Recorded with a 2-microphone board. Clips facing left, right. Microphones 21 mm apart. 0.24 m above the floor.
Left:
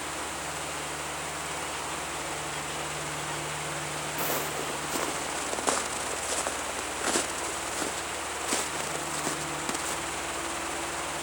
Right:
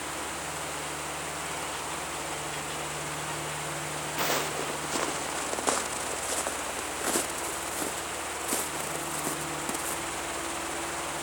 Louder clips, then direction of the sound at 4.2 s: Right 3 dB; 40° right (ahead or behind).